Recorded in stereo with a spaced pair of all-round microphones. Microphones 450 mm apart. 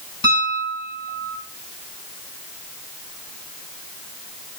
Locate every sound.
0.2 s a piano: 55° left (ahead or behind), 6.5 m